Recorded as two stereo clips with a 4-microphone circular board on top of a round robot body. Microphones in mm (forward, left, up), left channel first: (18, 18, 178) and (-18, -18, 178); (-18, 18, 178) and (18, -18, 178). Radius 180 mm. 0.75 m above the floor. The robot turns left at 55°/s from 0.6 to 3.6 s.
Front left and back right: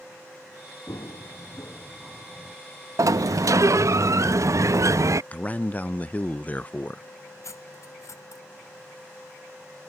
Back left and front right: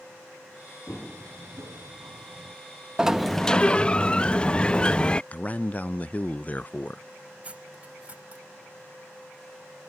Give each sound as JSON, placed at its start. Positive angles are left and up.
{"t": 0.9, "sound": "running footsteps", "azimuth_deg": 75}
{"t": 3.0, "sound": "a sliding door", "azimuth_deg": -120}
{"t": 5.3, "sound": "a man speaking", "azimuth_deg": 90}
{"t": 7.4, "sound": "cutlery clinking", "azimuth_deg": 20}